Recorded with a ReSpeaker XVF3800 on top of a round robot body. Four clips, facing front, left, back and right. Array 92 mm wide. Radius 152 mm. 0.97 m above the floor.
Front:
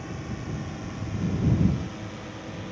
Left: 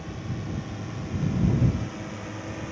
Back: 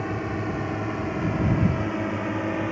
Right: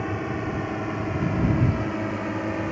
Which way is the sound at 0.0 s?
130° right.